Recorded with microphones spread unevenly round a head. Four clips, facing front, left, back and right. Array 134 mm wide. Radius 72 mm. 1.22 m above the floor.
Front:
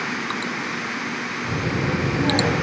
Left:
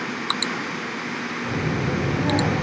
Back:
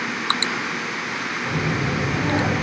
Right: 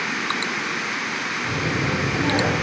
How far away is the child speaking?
About 2.5 m.